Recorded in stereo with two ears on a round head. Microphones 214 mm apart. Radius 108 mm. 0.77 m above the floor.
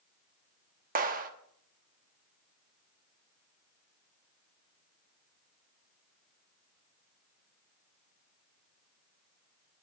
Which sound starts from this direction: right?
A clap, at 0.9 s.